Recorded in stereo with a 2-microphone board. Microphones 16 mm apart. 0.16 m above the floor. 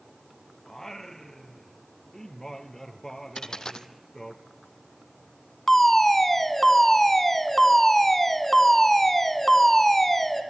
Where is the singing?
30° left (ahead or behind), 2 m.